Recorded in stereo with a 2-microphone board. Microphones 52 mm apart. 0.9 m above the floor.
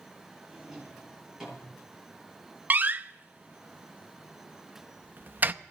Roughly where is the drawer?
Centre.